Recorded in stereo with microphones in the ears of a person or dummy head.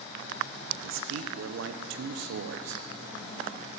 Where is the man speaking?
70° right (ahead or behind), 1.1 m.